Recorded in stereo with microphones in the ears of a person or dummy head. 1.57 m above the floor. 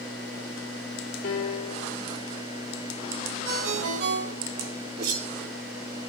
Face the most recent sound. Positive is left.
turn(degrees=-60)  # may be behind; listen again after turning